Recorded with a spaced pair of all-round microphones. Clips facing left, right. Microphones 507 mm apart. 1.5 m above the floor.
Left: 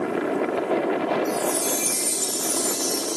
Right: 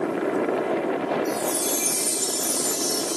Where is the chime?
75° left (ahead or behind), 3.5 m.